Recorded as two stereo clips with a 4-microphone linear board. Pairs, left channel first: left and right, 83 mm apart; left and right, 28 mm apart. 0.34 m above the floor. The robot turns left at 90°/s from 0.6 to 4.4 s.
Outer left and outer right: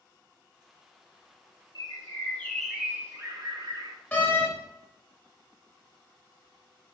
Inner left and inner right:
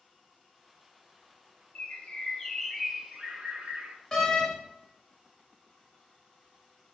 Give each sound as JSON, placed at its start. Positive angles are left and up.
{"t": 1.8, "sound": "a bird", "azimuth_deg": 80, "distance_m": 0.9}
{"t": 4.1, "sound": "a door slam", "side_deg": 15, "distance_m": 0.9}